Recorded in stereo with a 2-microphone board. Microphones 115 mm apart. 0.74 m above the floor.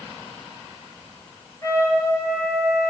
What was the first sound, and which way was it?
A trumpet, 25° left (ahead or behind).